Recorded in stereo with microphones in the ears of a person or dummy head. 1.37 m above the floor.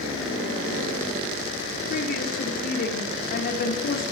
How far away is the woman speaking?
About 4 m.